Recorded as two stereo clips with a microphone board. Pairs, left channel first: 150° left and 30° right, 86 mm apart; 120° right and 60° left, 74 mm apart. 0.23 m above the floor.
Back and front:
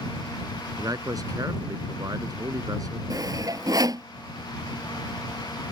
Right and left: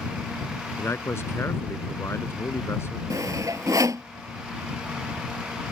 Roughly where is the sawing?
Ahead.